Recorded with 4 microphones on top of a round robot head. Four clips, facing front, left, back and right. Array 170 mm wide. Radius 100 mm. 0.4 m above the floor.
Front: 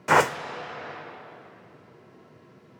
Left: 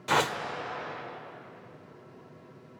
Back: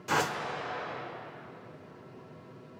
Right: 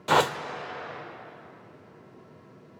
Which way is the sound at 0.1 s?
30° right.